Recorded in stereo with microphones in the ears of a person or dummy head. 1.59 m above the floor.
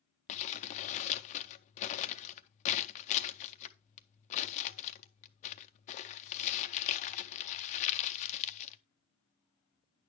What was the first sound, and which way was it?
Crumpling, 35° left (ahead or behind).